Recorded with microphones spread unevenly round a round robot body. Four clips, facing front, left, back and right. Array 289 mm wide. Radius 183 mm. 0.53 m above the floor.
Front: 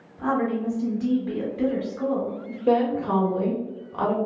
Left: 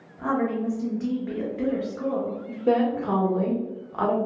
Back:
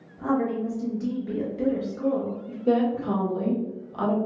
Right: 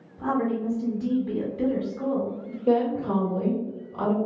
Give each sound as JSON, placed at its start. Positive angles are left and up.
{"t": 0.2, "sound": "a woman speaking", "azimuth_deg": 30, "distance_m": 1.0}
{"t": 2.7, "sound": "a woman speaking", "azimuth_deg": 45, "distance_m": 1.4}